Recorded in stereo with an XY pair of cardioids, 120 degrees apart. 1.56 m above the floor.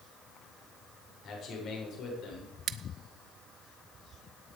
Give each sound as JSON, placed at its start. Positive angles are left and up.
{"t": 1.2, "sound": "a man speaking", "azimuth_deg": 55, "distance_m": 6.5}
{"t": 2.7, "sound": "scissors", "azimuth_deg": -60, "distance_m": 0.7}